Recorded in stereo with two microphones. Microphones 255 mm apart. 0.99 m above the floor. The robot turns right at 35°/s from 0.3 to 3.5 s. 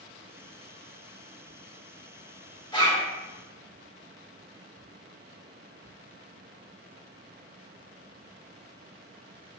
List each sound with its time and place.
2.7 s a zipper: 20° left (ahead or behind), 0.9 m; by 3.1 s 10° left (ahead or behind), 0.9 m